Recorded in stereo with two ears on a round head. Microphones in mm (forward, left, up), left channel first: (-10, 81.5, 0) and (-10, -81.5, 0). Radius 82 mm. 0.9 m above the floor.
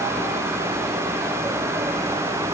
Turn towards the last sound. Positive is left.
No sound to turn to.